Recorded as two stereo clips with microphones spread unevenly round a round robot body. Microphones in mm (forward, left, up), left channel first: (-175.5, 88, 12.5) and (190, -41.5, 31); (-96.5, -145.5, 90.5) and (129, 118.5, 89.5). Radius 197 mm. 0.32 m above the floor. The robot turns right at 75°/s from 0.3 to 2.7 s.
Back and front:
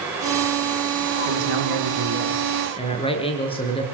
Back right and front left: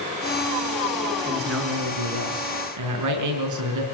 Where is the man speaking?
25° right, 5 m; by 3.9 s 85° left, 5 m.